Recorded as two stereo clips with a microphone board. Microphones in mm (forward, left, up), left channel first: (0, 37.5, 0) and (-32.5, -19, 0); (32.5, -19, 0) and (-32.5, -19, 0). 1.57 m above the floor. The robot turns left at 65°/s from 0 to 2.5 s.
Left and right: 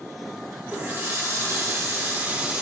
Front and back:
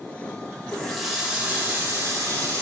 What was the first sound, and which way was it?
A running tap, 70° right.